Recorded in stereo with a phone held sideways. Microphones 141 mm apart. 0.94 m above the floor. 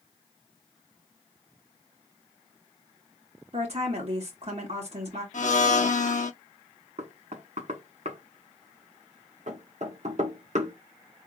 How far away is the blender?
About 0.8 m.